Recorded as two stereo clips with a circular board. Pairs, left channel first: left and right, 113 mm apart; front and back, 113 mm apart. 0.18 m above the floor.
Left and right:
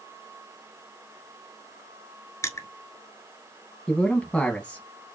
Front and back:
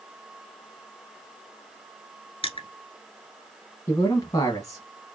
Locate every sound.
2.4 s crushing: 30° left, 1.2 m
3.9 s a man speaking: 15° left, 1.1 m